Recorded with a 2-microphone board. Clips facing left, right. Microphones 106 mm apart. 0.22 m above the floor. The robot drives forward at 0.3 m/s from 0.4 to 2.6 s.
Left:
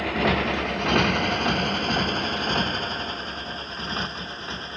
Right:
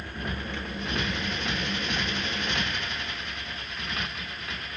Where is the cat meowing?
No cat meowing in this recording.